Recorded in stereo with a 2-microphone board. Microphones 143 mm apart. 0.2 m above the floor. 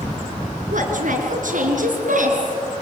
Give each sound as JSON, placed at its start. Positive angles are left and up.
{"t": 0.7, "sound": "a woman speaking", "side_deg": -65, "distance_m": 3.5}